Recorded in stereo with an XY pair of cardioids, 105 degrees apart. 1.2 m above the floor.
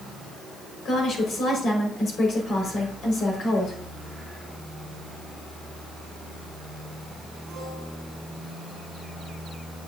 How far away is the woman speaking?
About 4.5 m.